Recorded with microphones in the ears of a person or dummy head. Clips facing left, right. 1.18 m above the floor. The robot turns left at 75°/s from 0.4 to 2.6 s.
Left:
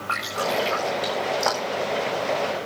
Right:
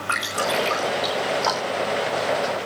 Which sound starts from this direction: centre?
Dripping, at 0.1 s.